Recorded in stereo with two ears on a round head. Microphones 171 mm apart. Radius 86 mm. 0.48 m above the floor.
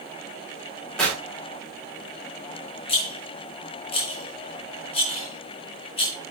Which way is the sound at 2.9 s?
30° left (ahead or behind).